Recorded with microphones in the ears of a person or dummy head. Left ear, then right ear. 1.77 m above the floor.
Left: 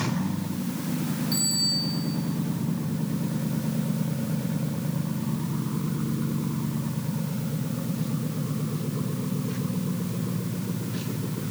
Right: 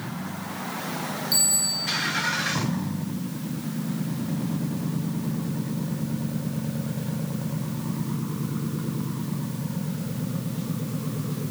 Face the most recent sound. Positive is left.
turn(degrees=-15)  # may be behind; listen again after turning